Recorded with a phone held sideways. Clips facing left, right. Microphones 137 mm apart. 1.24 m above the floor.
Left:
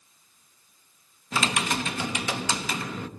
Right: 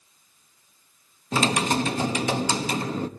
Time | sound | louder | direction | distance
1.3 | typing on a keyboard | right 5 dB | 35° right (ahead or behind) | 0.8 m